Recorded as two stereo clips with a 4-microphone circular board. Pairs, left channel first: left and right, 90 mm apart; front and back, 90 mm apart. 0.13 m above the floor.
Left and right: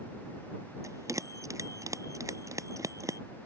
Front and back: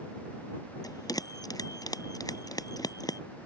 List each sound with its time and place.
0.8 s a bell: 40° right